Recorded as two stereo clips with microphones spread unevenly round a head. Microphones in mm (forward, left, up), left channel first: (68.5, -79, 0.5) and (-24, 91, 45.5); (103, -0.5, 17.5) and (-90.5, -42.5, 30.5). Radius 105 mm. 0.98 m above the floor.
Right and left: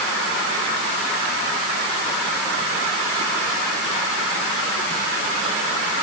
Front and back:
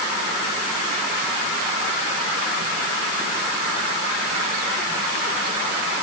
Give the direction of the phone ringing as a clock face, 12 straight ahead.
I don't hear a phone ringing.